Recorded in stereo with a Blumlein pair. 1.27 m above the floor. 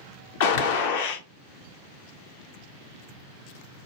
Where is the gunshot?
50° left, 0.6 m.